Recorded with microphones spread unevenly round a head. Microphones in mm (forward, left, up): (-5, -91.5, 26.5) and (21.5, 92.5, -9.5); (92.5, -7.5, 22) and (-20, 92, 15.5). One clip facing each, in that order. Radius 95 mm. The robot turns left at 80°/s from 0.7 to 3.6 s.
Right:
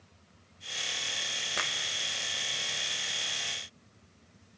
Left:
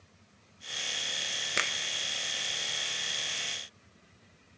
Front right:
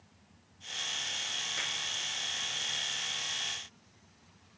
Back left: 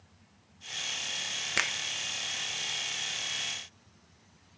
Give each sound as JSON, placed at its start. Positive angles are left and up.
{"t": 1.6, "sound": "a finger snap", "azimuth_deg": 145, "distance_m": 1.2}